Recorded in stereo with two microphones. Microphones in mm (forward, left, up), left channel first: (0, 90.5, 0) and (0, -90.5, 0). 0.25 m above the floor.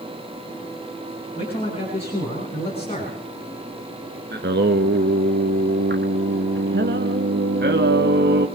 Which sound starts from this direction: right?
Singing, at 4.3 s.